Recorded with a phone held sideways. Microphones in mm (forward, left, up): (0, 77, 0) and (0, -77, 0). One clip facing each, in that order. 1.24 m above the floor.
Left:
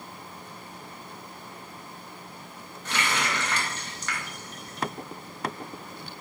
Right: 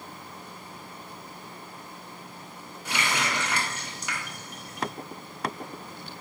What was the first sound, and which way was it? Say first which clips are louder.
A running tap: even; 10° right (ahead or behind).